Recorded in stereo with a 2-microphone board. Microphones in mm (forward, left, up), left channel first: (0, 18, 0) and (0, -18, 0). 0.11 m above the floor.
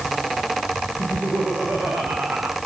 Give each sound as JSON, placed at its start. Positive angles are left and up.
{"t": 1.0, "sound": "laughter", "side_deg": -75, "distance_m": 5.5}